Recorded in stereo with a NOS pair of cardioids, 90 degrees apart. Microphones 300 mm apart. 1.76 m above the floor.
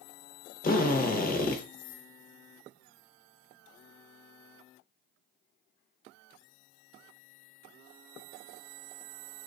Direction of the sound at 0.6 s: 30° left.